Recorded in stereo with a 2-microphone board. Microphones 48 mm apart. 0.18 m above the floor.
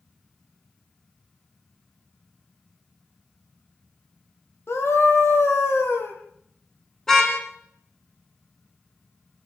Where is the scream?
60° left (ahead or behind), 5 m.